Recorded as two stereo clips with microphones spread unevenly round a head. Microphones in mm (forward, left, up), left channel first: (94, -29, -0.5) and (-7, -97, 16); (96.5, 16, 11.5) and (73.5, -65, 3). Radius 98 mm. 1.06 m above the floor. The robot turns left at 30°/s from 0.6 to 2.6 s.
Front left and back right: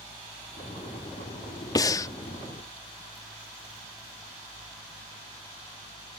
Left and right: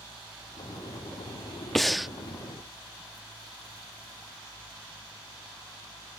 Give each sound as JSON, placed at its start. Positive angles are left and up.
{"t": 1.8, "sound": "breathing", "azimuth_deg": 5}